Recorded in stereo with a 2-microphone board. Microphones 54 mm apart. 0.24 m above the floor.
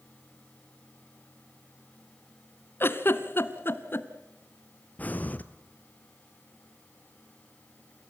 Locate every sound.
2.8 s a giggle: 50° left (ahead or behind), 1.5 m
5.0 s breathing: 35° left (ahead or behind), 1.2 m